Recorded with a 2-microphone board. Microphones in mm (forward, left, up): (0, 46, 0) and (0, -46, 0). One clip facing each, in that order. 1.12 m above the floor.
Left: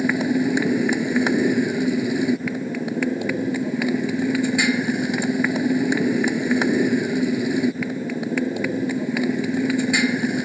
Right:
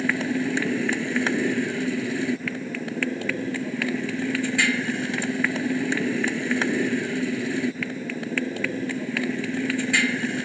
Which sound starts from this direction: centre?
A motorcycle, at 0.0 s.